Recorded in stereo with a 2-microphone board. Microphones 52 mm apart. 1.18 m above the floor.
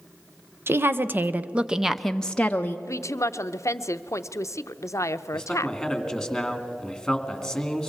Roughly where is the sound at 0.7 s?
Right.